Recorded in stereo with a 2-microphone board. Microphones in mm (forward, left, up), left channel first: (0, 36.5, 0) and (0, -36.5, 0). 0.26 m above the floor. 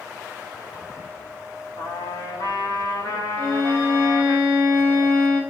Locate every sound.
1.8 s a trumpet: 50° left (ahead or behind), 6 m
3.4 s a violin: 25° left (ahead or behind), 8 m